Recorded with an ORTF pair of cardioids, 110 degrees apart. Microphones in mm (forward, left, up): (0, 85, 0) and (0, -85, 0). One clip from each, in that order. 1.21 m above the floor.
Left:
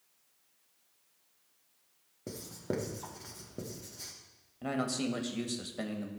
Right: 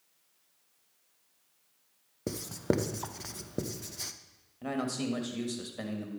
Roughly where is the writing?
Ahead right.